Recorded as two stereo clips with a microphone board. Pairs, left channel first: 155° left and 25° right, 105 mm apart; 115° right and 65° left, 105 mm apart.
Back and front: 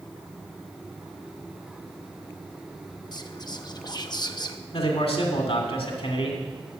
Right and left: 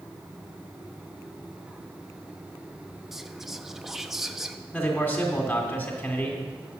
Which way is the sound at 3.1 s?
150° left.